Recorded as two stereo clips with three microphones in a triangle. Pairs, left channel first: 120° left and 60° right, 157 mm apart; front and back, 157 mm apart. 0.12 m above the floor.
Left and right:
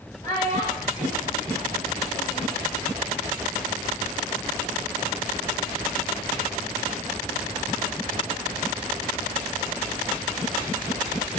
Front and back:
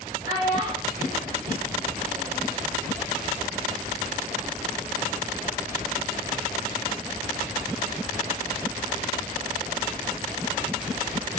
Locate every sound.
0.2 s a child speaking: 175° right, 4 m; by 2.5 s 155° left, 2.5 m